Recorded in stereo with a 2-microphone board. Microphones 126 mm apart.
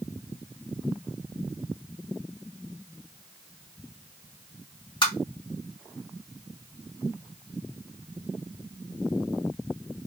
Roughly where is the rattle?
No rattle in this recording.